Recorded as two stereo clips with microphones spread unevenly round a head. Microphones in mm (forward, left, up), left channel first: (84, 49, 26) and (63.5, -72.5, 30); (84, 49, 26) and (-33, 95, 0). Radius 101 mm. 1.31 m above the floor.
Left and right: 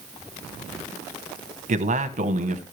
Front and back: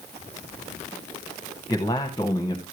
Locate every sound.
1.7 s a man speaking: 95° right, 1.1 m